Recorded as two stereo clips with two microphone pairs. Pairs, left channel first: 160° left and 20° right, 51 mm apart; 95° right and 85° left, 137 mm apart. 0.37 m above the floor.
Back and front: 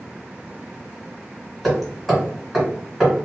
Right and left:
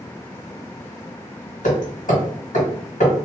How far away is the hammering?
About 1.9 m.